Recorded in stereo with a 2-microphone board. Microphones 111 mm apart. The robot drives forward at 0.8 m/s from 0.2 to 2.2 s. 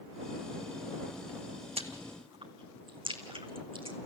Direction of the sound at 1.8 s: 65° right (ahead or behind).